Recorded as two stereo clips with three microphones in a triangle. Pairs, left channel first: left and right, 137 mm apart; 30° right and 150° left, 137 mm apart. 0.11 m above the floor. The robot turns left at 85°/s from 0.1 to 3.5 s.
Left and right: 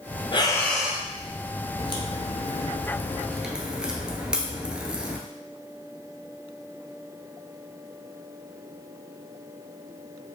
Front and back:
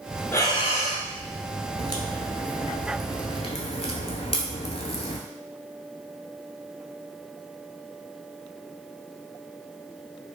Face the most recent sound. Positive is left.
turn(degrees=-10)